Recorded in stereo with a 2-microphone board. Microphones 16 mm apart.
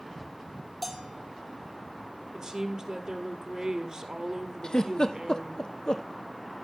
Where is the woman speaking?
45° right (ahead or behind), 1.9 m.